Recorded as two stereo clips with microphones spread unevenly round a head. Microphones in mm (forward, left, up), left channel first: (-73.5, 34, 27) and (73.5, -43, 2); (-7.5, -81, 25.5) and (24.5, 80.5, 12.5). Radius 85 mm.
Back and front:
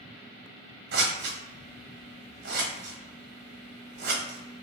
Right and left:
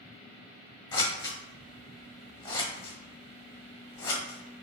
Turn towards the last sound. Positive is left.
turn(degrees=-50)